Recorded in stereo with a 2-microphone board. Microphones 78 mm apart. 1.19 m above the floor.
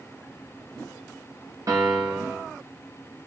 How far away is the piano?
About 1.1 m.